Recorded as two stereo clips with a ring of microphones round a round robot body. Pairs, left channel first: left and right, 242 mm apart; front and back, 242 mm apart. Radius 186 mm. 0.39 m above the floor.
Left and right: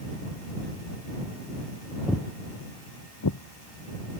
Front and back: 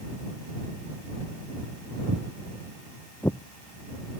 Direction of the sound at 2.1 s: Straight behind.